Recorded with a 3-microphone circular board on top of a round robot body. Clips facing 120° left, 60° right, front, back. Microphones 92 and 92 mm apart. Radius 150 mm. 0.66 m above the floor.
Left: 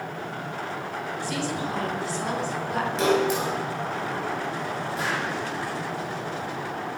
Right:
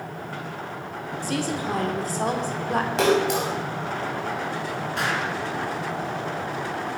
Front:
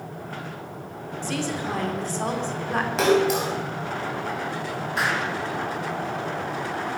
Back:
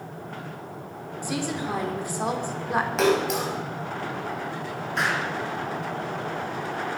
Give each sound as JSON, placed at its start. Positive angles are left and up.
{"t": 1.2, "sound": "a woman speaking", "azimuth_deg": -105, "distance_m": 3.0}
{"t": 3.0, "sound": "a splash", "azimuth_deg": -90, "distance_m": 5.0}
{"t": 5.0, "sound": "an explosion", "azimuth_deg": -85, "distance_m": 4.0}